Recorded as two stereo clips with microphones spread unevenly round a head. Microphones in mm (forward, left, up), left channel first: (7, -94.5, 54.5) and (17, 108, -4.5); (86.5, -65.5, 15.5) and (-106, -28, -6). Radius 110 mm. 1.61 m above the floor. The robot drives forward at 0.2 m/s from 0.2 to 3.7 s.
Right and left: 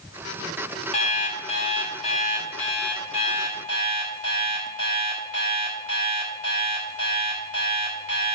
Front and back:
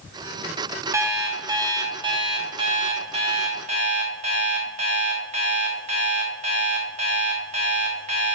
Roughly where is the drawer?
No drawer in this recording.